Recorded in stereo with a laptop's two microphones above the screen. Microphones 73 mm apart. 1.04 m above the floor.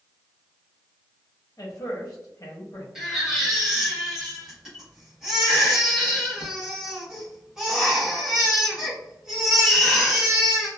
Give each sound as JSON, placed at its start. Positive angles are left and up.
{"t": 1.6, "sound": "a man speaking", "side_deg": 50, "distance_m": 0.8}
{"t": 3.0, "sound": "a baby crying", "side_deg": -5, "distance_m": 1.0}